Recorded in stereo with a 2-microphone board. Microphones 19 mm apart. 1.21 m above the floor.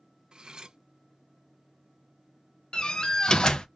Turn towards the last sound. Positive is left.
turn(degrees=50)  # may be behind; listen again after turning